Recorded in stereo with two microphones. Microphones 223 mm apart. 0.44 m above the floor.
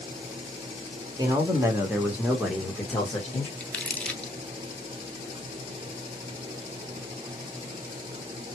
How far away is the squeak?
I don't hear a squeak.